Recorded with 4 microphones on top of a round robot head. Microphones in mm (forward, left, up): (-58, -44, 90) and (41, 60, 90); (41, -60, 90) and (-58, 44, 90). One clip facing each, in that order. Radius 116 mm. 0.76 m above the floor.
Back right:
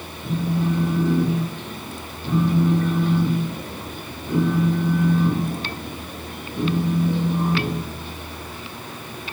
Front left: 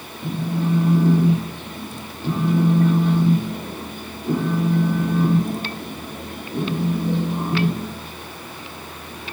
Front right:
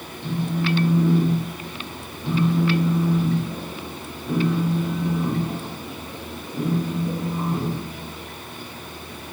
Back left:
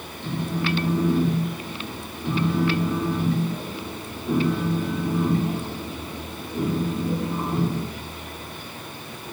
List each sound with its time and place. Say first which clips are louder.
0.2 s a phone buzzing: even, front right 2 dB; 45° left, 0.8 m